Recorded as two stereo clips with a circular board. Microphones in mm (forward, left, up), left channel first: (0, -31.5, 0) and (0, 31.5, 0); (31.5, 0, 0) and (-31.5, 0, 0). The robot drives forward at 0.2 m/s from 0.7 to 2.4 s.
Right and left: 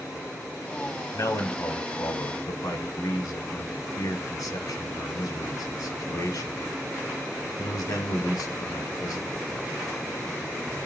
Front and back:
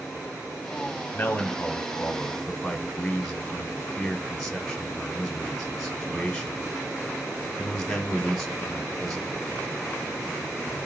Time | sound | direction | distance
1.1 | a man speaking | 65° right | 0.7 m